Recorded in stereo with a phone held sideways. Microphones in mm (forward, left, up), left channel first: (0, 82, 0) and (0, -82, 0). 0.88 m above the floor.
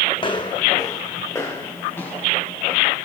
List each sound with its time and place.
0.2 s footsteps: 30° left (ahead or behind), 2.5 m; by 3.0 s 10° left (ahead or behind), 6 m